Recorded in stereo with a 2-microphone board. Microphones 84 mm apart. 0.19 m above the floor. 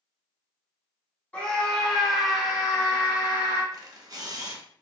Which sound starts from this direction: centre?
A scream, at 1.3 s.